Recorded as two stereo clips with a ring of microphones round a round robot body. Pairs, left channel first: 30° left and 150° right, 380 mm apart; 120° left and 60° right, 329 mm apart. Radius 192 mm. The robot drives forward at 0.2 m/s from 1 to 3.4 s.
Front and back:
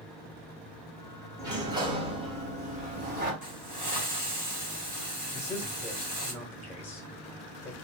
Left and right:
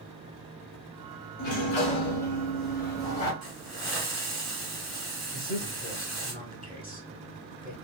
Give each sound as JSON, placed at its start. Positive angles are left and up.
{"t": 1.4, "sound": "a sliding door", "azimuth_deg": 125, "distance_m": 0.9}
{"t": 3.4, "sound": "a hiss", "azimuth_deg": -150, "distance_m": 1.5}
{"t": 5.3, "sound": "a man speaking", "azimuth_deg": 105, "distance_m": 1.1}